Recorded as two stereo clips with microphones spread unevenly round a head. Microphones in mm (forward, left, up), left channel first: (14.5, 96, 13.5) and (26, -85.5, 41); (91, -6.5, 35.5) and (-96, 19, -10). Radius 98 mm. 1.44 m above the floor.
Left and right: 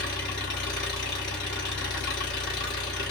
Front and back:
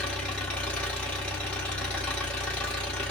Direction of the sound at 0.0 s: 65° left.